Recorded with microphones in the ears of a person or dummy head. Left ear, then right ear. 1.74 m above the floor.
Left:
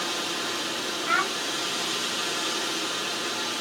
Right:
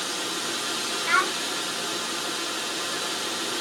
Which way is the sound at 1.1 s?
35° right (ahead or behind).